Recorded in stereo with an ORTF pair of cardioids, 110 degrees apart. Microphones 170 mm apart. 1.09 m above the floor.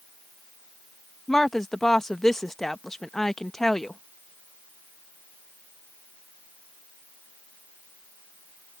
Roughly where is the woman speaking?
Ahead.